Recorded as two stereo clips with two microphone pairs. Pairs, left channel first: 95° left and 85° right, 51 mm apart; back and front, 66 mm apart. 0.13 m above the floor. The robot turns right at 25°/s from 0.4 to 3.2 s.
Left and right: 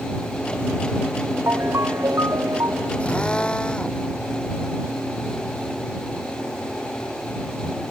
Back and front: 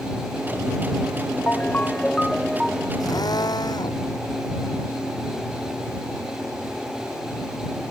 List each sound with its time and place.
1.5 s a ringtone: 115° right; by 2.9 s 80° right
3.0 s a drill: 160° left; by 4.1 s 165° left